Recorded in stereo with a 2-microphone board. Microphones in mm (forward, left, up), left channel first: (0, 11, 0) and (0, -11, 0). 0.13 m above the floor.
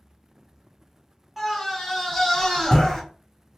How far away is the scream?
About 1.4 m.